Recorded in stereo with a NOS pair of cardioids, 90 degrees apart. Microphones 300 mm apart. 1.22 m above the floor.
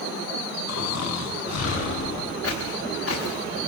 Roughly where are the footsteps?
Ahead left.